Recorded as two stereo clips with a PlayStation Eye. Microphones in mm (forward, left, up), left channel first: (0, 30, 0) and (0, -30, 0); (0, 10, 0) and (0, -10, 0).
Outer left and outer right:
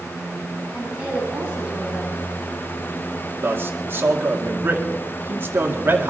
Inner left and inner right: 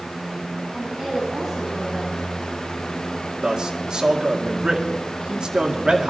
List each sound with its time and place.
0.7 s a woman speaking: 10° right (ahead or behind), 8.5 m
3.4 s a man speaking: 40° right (ahead or behind), 2.0 m